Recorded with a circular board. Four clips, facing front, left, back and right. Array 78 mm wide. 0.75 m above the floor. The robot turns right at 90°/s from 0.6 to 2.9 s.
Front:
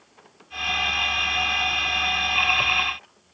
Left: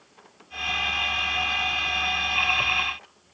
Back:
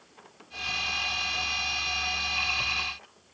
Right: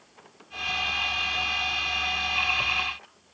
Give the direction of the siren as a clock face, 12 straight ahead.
I don't hear a siren.